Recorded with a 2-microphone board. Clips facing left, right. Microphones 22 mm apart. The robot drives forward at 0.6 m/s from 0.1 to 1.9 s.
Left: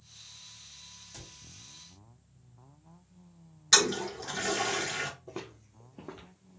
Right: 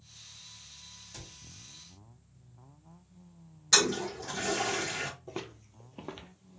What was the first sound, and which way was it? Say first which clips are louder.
A cupboard door: right 2 dB; 20° right (ahead or behind).